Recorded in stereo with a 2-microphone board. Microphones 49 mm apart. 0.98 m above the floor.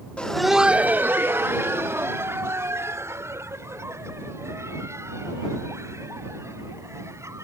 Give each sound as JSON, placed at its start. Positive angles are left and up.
{"t": 0.2, "sound": "laughter", "side_deg": 25}